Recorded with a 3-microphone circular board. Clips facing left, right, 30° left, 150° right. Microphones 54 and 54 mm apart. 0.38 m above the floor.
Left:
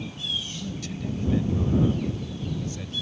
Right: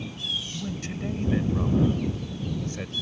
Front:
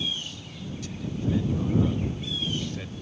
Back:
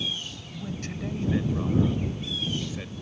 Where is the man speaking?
140° right; by 2.9 s 60° right.